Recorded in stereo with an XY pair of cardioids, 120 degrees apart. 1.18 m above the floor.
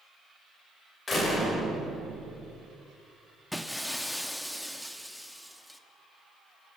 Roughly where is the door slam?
Ahead left.